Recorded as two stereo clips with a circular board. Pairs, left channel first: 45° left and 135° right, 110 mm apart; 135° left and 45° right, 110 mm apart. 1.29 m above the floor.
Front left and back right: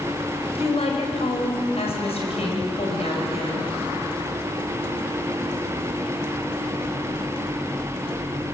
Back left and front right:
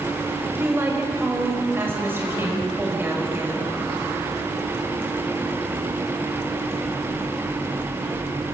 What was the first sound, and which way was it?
A woman speaking, 25° left.